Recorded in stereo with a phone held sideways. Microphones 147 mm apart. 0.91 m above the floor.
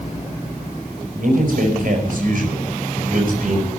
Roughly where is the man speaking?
Right.